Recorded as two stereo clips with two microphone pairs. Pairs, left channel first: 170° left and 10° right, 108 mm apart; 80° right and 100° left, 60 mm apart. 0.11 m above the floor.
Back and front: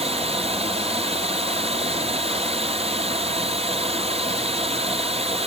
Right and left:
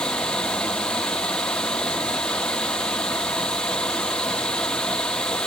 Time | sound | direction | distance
0.0 | running water | straight ahead | 1.4 m